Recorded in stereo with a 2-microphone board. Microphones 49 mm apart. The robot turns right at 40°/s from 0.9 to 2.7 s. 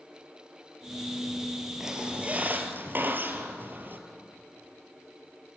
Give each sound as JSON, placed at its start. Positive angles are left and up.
{"t": 1.8, "sound": "a squeak", "azimuth_deg": -170, "distance_m": 2.5}